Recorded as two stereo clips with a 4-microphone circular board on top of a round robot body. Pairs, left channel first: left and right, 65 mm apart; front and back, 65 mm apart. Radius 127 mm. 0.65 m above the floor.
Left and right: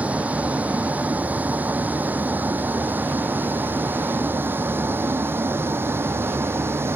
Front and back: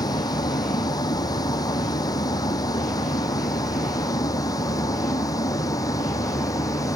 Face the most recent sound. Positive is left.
turn(degrees=-35)